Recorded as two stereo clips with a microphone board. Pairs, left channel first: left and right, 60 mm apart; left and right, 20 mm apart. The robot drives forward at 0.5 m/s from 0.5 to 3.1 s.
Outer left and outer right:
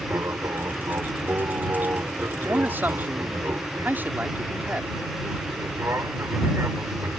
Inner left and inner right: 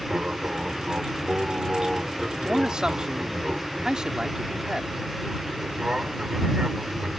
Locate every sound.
0.0 s an aircraft: 45° right (ahead or behind)
2.4 s a man speaking: 40° right (ahead or behind); by 4.9 s 35° right (ahead or behind)